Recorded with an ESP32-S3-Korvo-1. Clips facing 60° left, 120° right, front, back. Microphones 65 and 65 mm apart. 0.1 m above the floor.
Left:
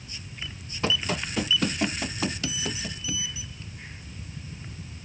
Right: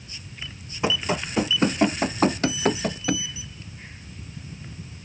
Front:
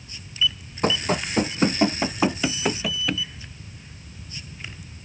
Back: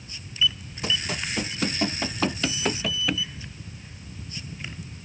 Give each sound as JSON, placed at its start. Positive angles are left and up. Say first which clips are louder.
{"t": 0.8, "sound": "running footsteps", "louder": "right 3 dB, front 6 dB", "azimuth_deg": -45}